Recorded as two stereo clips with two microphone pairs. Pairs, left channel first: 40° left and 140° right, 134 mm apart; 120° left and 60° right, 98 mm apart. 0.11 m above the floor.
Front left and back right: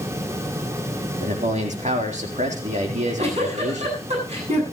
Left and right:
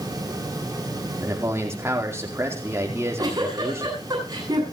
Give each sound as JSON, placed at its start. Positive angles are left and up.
{"t": 1.2, "sound": "a man speaking", "azimuth_deg": -120, "distance_m": 4.0}
{"t": 2.9, "sound": "a giggle", "azimuth_deg": -110, "distance_m": 8.5}